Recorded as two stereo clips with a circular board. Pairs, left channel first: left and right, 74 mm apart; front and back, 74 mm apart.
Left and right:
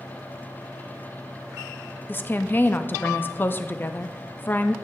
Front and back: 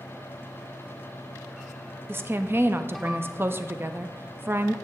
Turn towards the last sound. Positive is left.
turn(degrees=135)